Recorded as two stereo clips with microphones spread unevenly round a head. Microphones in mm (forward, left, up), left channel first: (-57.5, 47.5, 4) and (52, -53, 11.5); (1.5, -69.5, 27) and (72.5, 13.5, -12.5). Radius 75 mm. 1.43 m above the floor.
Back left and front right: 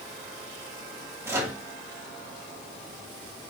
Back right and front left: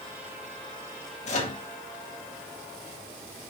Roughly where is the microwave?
Behind right.